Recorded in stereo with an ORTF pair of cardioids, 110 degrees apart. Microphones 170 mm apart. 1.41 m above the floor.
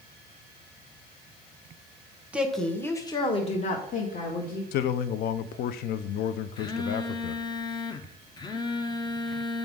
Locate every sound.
2.3 s a woman speaking: 5° right, 1.1 m; by 4.6 s 60° left, 1.8 m
4.7 s a man speaking: 70° left, 0.5 m
6.6 s a phone buzzing: 25° left, 0.7 m